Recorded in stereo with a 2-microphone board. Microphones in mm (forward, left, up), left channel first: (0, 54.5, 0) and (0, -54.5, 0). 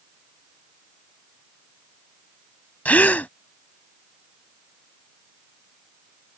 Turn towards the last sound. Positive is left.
turn(degrees=15)  # may be behind; listen again after turning